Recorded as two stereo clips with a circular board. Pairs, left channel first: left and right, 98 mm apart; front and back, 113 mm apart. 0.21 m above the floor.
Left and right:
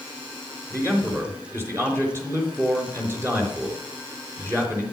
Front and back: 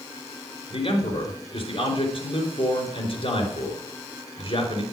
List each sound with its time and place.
0.7 s a man speaking: 30° right, 4 m